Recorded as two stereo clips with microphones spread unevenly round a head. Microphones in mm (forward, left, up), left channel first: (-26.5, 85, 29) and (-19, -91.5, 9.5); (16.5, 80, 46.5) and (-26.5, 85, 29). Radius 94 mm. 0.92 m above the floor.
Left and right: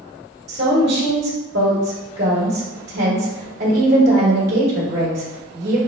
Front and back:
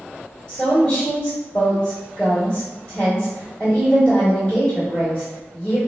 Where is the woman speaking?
95° right, 1.8 m.